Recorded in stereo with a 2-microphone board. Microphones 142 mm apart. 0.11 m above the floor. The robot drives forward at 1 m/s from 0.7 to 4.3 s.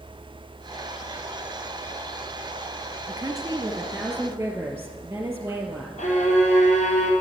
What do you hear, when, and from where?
3.1 s a woman speaking: 30° right (ahead or behind), 1.5 m; by 5.9 s 15° right (ahead or behind), 2.5 m
6.0 s a violin: 65° left (ahead or behind), 3 m